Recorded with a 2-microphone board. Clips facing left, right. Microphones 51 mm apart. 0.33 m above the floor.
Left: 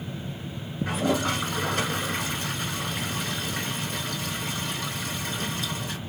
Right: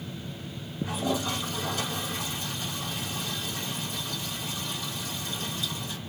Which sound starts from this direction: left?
A toilet flushing, at 0.9 s.